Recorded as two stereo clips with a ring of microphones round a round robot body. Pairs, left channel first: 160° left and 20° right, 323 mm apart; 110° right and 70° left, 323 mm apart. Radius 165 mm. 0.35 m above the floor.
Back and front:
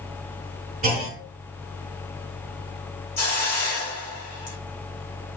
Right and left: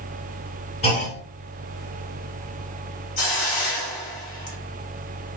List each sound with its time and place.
0.8 s a clunk: 65° right, 1.7 m
3.2 s a hiss: 135° right, 1.8 m